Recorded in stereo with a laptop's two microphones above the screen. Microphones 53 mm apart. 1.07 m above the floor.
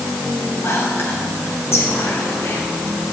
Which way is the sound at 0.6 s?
50° left (ahead or behind).